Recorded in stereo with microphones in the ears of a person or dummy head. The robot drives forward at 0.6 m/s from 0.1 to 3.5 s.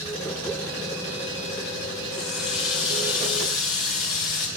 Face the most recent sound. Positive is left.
turn(degrees=0)  # may be behind; listen again after turning